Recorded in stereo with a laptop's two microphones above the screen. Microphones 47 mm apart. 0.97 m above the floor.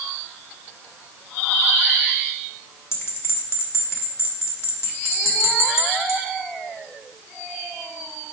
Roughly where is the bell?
Left.